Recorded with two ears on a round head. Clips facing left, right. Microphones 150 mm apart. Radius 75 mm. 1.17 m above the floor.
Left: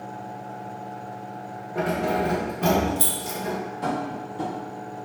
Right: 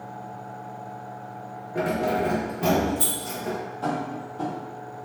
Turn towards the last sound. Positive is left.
turn(degrees=20)  # may be behind; listen again after turning